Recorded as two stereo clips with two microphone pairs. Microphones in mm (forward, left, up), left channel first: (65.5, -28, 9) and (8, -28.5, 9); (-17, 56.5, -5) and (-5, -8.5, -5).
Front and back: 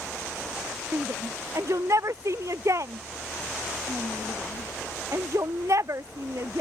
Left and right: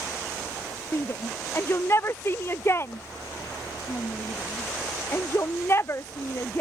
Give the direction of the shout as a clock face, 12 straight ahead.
7 o'clock.